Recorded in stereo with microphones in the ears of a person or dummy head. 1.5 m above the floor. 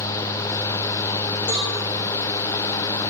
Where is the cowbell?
75° left (ahead or behind), 2.5 m.